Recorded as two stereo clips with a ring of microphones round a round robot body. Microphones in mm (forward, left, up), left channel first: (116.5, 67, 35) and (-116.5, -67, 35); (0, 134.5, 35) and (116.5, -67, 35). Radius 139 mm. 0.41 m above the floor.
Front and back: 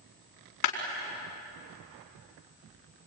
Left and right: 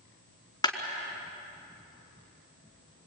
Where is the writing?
I don't hear writing.